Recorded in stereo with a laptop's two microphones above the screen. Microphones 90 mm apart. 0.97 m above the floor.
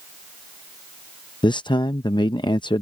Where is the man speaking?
65° left (ahead or behind).